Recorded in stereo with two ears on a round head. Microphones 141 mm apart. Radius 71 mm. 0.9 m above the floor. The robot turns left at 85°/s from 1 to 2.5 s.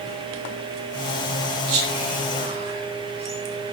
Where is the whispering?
70° right (ahead or behind), 6.5 m; by 3.4 s 40° right (ahead or behind), 6.5 m.